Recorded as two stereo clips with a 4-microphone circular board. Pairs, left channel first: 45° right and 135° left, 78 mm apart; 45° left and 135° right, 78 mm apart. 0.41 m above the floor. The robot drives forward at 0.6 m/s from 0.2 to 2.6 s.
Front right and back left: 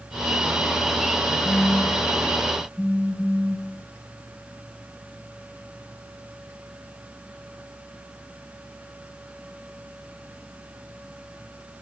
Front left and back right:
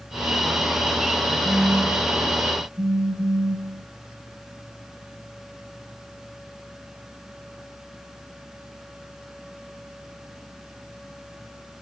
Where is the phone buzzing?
125° right, 5.5 m; by 3.9 s 130° right, 6 m.